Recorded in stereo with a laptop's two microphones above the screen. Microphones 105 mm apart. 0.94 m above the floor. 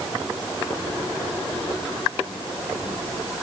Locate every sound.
Only background noise.